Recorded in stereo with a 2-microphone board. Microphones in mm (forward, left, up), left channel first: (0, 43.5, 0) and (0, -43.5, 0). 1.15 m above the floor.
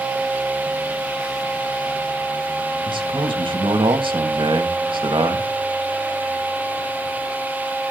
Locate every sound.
2.8 s a man speaking: 65° right (ahead or behind), 2.0 m